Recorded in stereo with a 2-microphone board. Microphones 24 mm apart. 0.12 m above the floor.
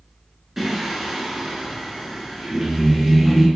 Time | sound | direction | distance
0.6 | singing | 10° right (ahead or behind) | 0.7 m